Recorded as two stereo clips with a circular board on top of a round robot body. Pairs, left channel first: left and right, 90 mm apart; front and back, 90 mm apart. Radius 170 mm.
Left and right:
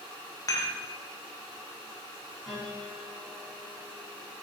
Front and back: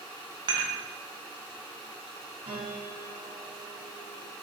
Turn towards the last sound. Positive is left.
turn(degrees=180)